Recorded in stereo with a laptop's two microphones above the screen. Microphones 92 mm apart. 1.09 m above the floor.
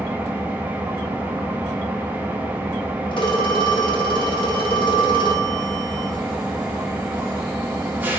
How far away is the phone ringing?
About 0.8 m.